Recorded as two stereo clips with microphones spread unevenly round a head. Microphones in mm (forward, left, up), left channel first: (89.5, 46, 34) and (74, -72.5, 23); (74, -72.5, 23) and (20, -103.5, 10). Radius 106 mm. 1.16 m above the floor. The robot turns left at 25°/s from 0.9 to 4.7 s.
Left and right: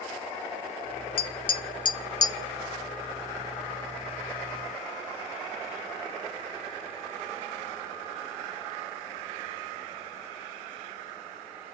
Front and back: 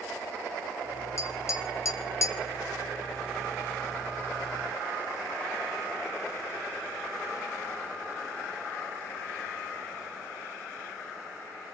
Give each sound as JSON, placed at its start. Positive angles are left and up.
{"t": 1.2, "sound": "tapping", "azimuth_deg": 65, "distance_m": 0.5}